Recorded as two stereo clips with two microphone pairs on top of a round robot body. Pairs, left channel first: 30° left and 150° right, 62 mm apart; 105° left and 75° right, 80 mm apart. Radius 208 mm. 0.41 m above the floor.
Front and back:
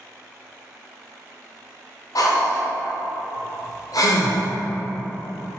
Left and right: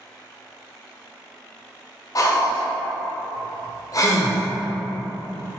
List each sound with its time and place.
2.1 s breathing: 60° left, 0.6 m